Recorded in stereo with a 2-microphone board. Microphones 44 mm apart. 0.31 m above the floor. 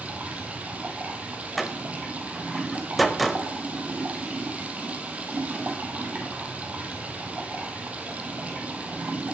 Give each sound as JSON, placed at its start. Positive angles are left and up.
{"t": 0.0, "sound": "running water", "side_deg": -30, "distance_m": 1.7}
{"t": 1.6, "sound": "a door slam", "side_deg": 0, "distance_m": 0.9}